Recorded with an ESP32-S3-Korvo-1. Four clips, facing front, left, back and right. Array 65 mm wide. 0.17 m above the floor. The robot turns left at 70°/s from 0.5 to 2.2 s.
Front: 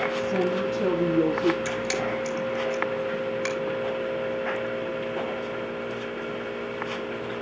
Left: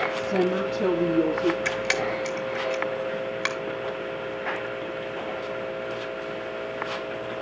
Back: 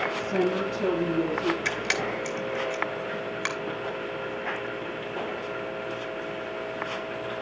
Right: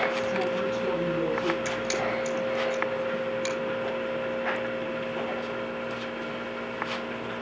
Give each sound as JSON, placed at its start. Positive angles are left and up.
{"t": 0.1, "sound": "a woman speaking", "azimuth_deg": 90, "distance_m": 4.5}
{"t": 1.6, "sound": "a camera shutter", "azimuth_deg": 145, "distance_m": 2.5}